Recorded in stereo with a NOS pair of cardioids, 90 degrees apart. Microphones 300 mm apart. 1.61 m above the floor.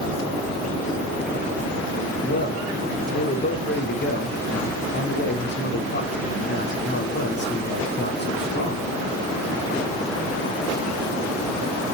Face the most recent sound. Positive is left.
turn(degrees=35)